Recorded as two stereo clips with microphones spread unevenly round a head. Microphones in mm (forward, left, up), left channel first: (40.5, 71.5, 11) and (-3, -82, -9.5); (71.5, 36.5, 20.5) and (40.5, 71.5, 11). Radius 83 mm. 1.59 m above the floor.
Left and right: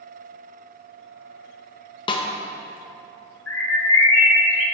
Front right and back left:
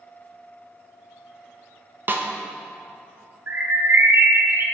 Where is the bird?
90° left, 1.5 m.